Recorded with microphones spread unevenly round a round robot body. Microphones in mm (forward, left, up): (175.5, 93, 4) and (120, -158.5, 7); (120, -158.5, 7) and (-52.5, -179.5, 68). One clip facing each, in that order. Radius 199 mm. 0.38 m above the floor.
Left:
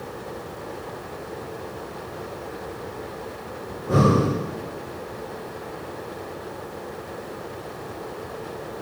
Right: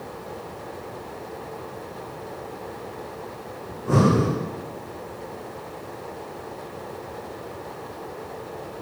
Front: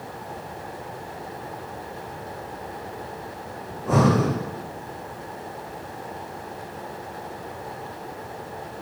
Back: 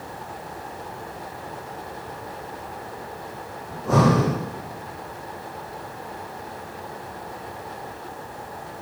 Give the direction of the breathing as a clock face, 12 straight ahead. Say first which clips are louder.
Even, back 1 dB; 3 o'clock.